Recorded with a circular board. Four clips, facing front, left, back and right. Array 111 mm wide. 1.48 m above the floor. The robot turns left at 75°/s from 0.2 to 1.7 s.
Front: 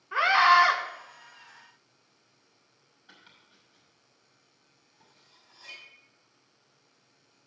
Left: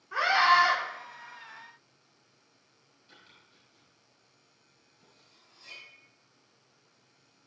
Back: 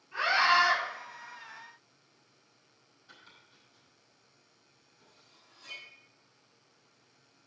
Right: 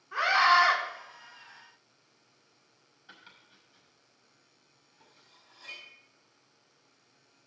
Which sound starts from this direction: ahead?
A scream, at 0.1 s.